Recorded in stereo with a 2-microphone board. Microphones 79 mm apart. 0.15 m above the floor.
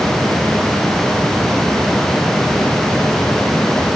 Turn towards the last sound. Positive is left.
No sound to turn to.